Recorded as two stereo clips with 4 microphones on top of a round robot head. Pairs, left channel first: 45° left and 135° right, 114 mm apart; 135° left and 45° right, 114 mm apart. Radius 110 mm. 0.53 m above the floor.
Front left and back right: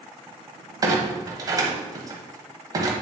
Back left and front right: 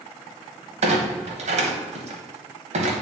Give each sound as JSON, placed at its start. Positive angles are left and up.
{"t": 0.8, "sound": "a clunk", "azimuth_deg": -75, "distance_m": 1.0}